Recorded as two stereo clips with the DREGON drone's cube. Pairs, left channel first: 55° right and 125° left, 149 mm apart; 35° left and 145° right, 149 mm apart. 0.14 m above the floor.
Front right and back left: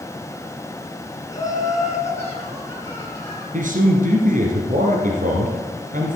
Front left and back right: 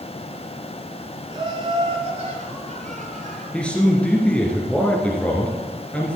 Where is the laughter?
110° right, 1.9 m; by 3.4 s 130° right, 4 m.